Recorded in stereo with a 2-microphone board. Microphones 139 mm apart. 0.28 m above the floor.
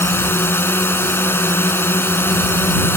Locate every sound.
0.0 s a drone: 15° left (ahead or behind)